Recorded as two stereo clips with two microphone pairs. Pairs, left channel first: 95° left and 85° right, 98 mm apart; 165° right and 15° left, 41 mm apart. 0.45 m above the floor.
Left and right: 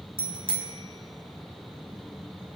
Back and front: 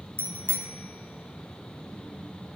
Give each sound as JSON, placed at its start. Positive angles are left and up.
{"t": 0.2, "sound": "a bicycle bell", "azimuth_deg": -115, "distance_m": 2.5}